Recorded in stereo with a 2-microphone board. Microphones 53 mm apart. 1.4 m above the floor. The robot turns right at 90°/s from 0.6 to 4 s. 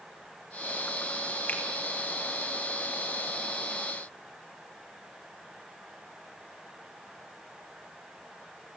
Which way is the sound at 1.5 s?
35° left (ahead or behind).